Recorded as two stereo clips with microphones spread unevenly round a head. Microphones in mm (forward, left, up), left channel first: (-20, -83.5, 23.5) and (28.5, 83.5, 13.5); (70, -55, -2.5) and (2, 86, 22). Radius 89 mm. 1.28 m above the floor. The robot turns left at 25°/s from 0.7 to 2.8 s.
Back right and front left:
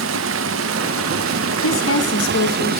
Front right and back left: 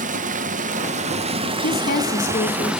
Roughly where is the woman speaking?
Right.